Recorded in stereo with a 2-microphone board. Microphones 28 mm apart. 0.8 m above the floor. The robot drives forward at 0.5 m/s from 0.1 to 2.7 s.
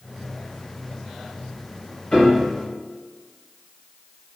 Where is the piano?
40° left (ahead or behind), 2.5 m; by 2.5 s 35° left (ahead or behind), 3 m.